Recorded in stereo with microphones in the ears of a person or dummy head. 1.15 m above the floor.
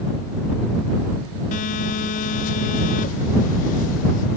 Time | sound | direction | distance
1.5 | a phone buzzing | 45° left (ahead or behind) | ?